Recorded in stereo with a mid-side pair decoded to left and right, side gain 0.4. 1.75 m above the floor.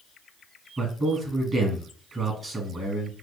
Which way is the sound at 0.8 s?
35° right.